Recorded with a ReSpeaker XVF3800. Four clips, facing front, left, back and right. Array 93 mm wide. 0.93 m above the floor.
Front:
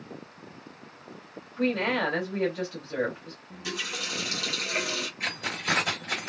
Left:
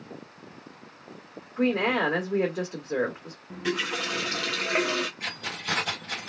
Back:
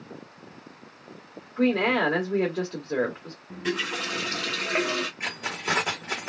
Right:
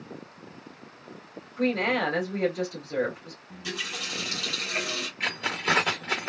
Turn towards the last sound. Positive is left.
turn(degrees=-120)